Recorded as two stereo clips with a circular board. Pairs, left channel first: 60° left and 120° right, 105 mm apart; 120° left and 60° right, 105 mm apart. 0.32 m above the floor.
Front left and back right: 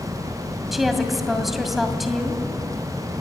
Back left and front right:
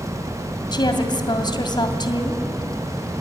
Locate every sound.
0.7 s a woman speaking: 150° left, 2.5 m